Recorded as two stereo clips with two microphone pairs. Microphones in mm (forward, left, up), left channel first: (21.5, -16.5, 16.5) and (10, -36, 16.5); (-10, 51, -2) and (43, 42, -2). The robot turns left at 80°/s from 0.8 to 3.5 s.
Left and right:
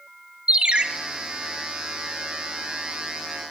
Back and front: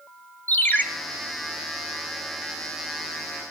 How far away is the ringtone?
About 1.0 m.